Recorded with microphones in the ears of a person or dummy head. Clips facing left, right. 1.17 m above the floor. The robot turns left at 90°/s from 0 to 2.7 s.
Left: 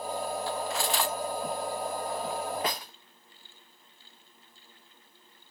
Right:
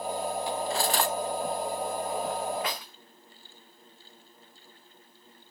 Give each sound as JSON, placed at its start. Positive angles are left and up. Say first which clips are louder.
{"t": 0.5, "sound": "cutlery clinking", "louder": "right 2 dB", "side_deg": -15, "distance_m": 0.6}